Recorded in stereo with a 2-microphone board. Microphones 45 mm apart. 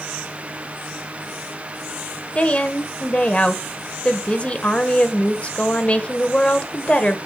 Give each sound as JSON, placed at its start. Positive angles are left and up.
{"t": 2.4, "sound": "a woman speaking", "side_deg": 25, "distance_m": 1.0}